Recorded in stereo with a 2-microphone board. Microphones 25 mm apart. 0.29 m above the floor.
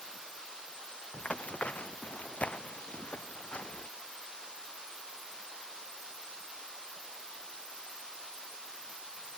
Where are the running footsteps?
70° left (ahead or behind); by 3.9 s 85° left.